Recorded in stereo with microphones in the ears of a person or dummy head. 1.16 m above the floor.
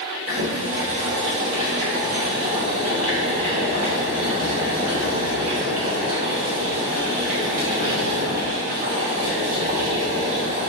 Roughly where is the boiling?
Right.